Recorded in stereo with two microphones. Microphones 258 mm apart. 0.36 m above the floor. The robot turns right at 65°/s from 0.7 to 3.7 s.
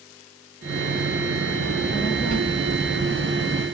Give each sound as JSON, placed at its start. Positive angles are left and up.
{"t": 1.6, "sound": "a child speaking", "azimuth_deg": -20, "distance_m": 7.0}